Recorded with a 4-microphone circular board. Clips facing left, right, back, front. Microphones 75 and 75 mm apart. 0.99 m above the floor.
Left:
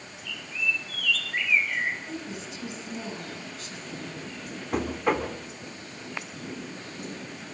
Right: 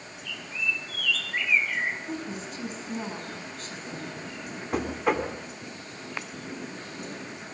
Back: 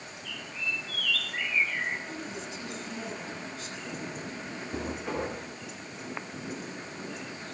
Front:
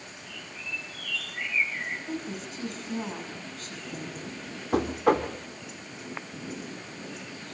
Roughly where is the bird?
Behind.